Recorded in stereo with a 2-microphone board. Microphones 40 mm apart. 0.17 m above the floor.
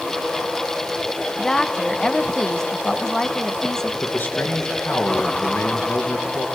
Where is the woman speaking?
15° left (ahead or behind), 1.1 m.